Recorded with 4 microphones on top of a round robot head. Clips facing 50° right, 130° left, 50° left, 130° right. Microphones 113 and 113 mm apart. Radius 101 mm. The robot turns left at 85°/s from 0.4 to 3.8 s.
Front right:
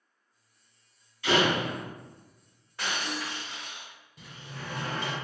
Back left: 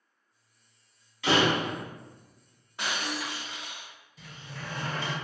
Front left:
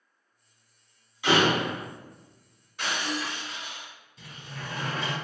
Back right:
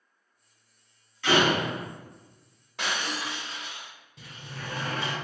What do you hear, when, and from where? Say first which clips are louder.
1.2 s a door slam: back left 1 dB, even; 130° left, 1.5 m; by 1.8 s 75° left, 1.5 m
2.8 s breaking glass: even, front left 1 dB; 160° right, 0.8 m; by 3.9 s 115° left, 0.8 m
4.2 s a sliding door: even, even; 95° right, 1.9 m